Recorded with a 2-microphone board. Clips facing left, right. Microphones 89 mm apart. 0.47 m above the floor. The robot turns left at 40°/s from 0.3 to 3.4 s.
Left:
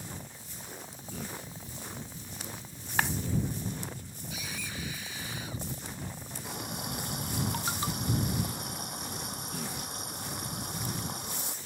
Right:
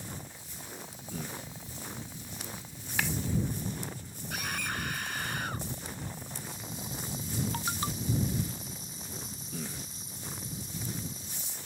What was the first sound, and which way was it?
A clap, 45° left (ahead or behind).